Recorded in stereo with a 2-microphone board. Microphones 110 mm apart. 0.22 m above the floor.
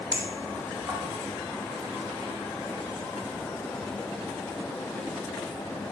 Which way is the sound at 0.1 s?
20° right (ahead or behind).